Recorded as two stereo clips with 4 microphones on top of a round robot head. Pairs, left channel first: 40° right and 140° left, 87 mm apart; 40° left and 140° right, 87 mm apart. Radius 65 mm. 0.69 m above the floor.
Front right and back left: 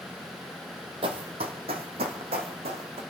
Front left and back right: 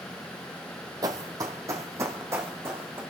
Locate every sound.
1.0 s running footsteps: 170° left, 1.3 m; by 3.0 s 155° left, 2.5 m